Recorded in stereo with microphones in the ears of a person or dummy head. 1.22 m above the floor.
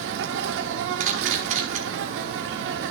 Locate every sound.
0.0 s an insect: 65° right (ahead or behind), 1.2 m
1.0 s a camera shutter: 45° right (ahead or behind), 1.4 m